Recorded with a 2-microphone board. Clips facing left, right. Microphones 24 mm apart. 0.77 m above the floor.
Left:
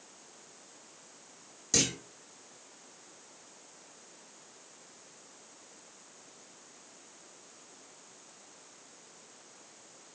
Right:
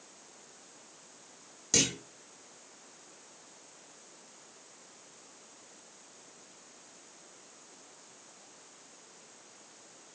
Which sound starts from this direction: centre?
A clunk, at 1.7 s.